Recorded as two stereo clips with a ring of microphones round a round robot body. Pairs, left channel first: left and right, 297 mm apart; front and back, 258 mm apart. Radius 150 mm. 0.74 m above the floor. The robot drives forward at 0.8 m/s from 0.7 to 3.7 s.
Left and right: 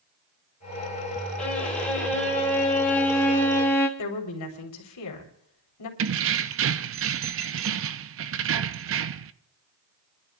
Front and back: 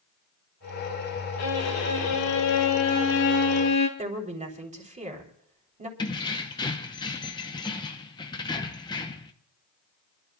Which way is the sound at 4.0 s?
120° left.